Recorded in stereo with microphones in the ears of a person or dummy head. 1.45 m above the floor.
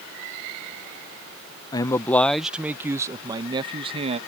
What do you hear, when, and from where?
1.7 s a man speaking: 20° left (ahead or behind); by 4.2 s 35° right (ahead or behind)